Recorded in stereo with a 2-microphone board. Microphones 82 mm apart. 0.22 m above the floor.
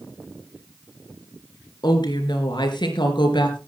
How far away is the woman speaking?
About 3.5 m.